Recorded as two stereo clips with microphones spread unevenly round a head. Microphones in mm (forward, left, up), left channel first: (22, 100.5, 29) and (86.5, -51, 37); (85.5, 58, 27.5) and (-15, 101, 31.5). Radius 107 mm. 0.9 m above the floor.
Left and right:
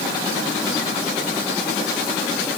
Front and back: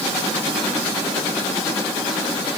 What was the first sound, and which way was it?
Only background noise.